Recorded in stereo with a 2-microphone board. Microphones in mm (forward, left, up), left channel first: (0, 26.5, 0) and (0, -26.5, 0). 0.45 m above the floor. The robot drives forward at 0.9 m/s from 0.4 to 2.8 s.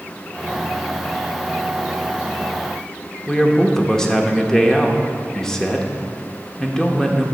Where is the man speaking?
15° left (ahead or behind), 0.7 m.